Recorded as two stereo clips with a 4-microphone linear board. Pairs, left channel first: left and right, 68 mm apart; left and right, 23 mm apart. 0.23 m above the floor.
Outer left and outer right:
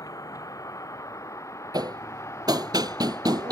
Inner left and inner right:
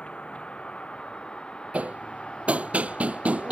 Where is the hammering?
80° right.